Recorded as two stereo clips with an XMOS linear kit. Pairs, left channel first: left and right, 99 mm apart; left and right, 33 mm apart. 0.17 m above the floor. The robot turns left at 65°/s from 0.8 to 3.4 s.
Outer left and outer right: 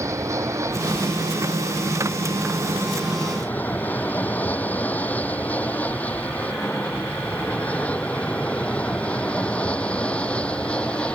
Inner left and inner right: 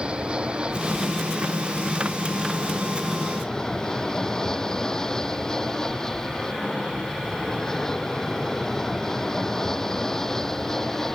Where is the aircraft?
30° right (ahead or behind); by 11.2 s 10° left (ahead or behind).